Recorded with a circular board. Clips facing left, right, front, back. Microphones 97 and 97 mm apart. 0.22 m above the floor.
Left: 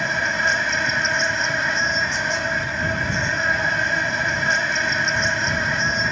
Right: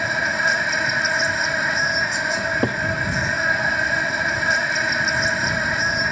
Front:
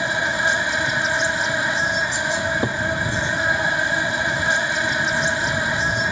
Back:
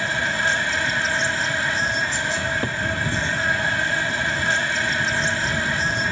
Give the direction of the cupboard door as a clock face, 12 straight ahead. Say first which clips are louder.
Right 2 dB, front 3 dB; 2 o'clock.